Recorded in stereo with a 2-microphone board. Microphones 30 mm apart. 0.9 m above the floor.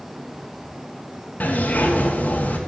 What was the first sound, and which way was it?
A zipper, 75° left (ahead or behind).